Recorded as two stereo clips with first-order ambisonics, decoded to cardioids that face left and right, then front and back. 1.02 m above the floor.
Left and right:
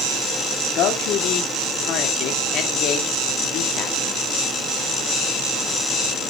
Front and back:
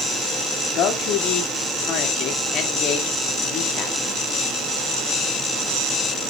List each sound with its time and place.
0.8 s a man speaking: 45° left, 1.7 m